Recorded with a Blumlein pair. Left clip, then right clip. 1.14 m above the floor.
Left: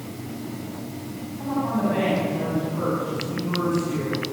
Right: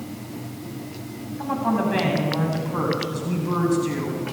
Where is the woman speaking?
70° right, 8 m; by 4.2 s 55° right, 8.5 m.